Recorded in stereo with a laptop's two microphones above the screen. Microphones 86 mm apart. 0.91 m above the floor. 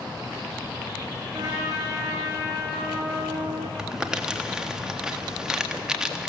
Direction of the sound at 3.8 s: 5° right (ahead or behind).